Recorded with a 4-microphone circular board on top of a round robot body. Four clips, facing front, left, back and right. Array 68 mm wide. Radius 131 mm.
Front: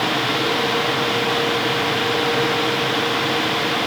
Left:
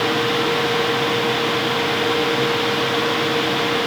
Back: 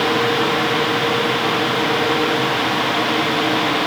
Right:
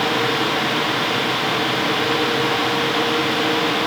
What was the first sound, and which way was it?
Only background noise.